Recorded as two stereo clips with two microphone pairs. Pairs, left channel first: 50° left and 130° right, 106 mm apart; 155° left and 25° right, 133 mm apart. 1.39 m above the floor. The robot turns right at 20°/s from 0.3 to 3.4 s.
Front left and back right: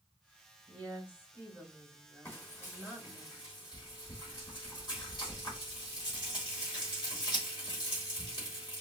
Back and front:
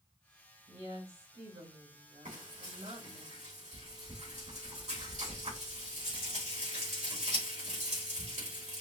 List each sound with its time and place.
0.7 s a woman speaking: 55° right, 2.5 m; by 3.2 s 5° right, 2.5 m
2.2 s frying: 20° right, 3 m; by 8.8 s 5° left, 3 m